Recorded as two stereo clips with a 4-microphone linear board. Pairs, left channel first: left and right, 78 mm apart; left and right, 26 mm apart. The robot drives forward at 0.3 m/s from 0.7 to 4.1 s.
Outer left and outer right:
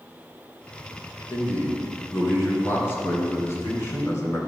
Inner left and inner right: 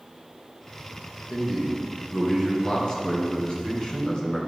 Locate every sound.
1.3 s a man speaking: 30° left (ahead or behind), 2.5 m; by 4.4 s 40° left (ahead or behind), 2 m